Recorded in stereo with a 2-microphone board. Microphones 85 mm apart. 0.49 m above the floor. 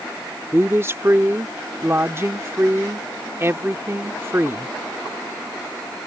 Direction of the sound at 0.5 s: 30° right (ahead or behind).